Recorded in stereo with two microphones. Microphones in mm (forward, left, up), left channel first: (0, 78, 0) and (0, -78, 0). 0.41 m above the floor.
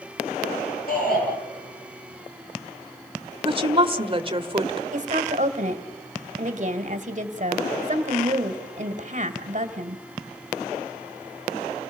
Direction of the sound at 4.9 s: 50° right (ahead or behind).